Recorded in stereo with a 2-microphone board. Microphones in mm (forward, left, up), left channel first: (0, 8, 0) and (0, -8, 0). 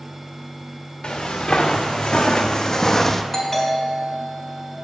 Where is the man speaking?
No man speaking in this recording.